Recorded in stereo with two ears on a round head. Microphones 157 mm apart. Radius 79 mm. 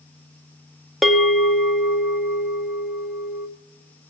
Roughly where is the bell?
Centre.